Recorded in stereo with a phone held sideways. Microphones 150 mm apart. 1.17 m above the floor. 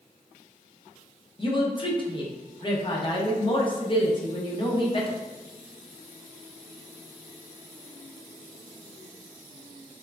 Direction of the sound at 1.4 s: 35° left (ahead or behind).